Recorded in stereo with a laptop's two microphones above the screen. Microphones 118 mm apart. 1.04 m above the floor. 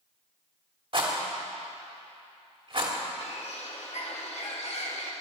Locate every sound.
0.9 s a rattle: 50° right (ahead or behind), 2.5 m
3.2 s a bird: 65° left (ahead or behind), 2.0 m